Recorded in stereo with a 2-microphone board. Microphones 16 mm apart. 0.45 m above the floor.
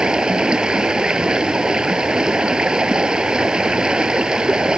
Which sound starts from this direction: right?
Running water, at 0.0 s.